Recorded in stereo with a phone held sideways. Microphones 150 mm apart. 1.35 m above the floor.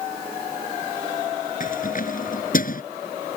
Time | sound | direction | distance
1.6 | keys jangling | 60° left (ahead or behind) | ?